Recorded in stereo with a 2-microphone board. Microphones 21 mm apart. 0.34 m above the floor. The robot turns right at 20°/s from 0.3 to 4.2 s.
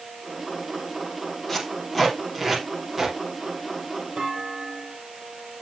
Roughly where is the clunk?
Right.